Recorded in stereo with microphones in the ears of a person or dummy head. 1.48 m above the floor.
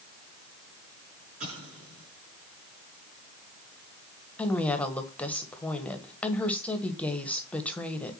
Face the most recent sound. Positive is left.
turn(degrees=10)  # may be behind; listen again after turning